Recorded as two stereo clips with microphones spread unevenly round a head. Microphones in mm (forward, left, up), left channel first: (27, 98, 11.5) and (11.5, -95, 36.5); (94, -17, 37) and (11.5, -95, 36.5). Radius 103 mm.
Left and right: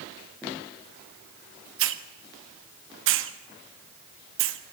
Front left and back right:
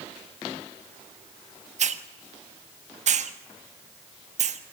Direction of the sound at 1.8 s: 125° right.